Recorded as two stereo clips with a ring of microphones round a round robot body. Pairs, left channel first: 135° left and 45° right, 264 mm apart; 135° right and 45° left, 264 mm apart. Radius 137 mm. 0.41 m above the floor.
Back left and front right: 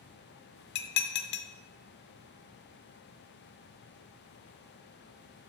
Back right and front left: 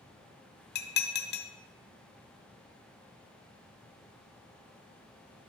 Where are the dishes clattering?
Straight behind, 0.9 m.